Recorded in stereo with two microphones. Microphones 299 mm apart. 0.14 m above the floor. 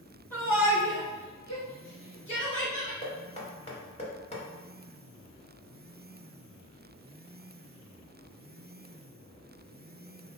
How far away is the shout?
About 1.5 m.